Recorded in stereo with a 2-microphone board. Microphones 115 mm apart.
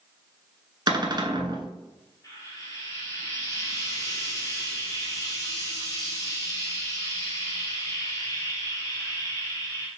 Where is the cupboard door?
40° right (ahead or behind), 1.0 m.